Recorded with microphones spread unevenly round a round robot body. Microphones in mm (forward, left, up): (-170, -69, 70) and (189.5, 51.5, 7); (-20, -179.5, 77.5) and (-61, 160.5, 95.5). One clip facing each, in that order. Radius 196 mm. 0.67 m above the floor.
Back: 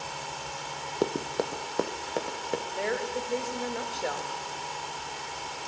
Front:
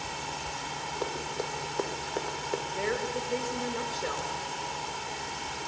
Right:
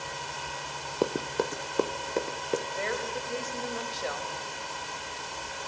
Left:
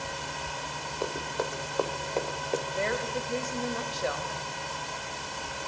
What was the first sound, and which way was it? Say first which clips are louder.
Running footsteps: back 7 dB, right 5 dB; 125° right.